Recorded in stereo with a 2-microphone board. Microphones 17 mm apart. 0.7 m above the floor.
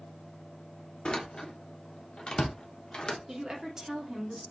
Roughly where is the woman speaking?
Right.